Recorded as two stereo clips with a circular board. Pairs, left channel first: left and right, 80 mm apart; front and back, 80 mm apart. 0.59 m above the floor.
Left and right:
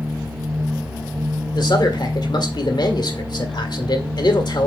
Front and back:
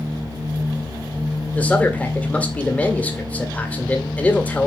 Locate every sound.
1.6 s a man speaking: 70° left, 1.7 m